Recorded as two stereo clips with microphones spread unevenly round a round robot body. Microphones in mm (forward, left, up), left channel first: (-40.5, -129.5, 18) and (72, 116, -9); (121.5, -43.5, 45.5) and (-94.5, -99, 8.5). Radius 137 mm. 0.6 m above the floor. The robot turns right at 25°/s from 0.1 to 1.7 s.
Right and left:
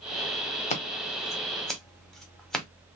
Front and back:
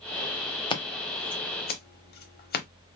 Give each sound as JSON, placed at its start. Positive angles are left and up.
{"t": 0.7, "sound": "scissors", "azimuth_deg": -55, "distance_m": 0.9}